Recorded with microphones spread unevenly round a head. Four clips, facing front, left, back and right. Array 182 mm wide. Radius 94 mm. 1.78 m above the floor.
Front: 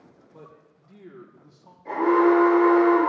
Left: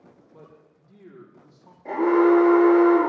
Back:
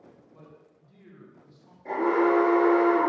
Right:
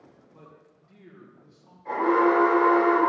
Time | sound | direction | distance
0.3 | a man speaking | 25° left | 3 m
1.9 | an alarm | 115° left | 6.5 m